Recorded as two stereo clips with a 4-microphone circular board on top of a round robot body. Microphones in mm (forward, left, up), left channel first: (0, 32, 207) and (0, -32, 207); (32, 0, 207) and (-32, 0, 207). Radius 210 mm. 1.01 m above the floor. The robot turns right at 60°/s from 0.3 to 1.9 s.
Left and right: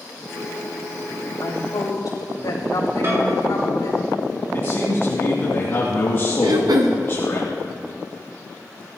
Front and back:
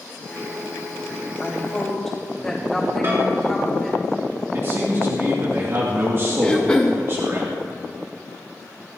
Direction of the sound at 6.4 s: 75° right.